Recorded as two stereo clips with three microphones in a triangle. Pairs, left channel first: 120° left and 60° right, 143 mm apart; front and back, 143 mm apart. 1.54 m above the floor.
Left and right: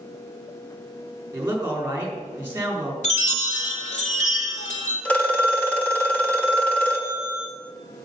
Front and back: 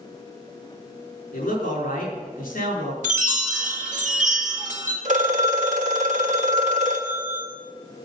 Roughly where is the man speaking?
Ahead.